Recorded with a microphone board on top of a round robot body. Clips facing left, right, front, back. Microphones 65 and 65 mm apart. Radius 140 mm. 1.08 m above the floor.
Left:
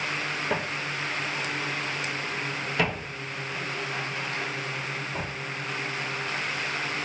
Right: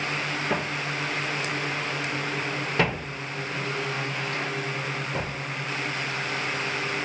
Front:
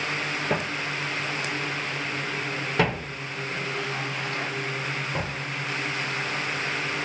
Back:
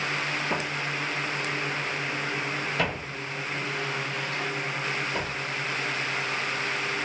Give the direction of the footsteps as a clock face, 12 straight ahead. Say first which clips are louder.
Right 2 dB, front 2 dB; 12 o'clock.